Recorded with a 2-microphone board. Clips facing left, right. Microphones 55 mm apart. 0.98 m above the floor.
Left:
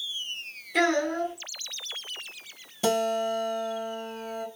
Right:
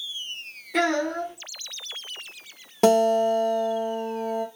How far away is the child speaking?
About 1.5 m.